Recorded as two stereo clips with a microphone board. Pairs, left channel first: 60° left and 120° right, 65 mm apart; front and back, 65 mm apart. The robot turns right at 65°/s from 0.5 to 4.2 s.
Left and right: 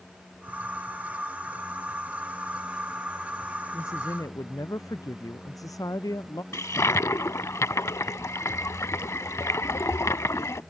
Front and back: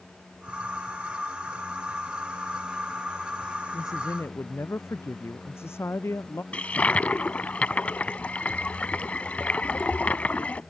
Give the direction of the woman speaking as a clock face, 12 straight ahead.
12 o'clock.